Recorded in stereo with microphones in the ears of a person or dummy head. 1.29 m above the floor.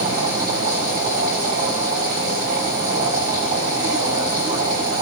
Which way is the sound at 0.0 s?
50° right (ahead or behind).